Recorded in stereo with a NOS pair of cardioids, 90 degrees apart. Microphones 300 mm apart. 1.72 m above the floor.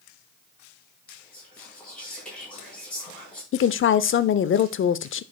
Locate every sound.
1.1 s whispering: 5° left, 4 m
3.5 s a woman speaking: 40° left, 0.6 m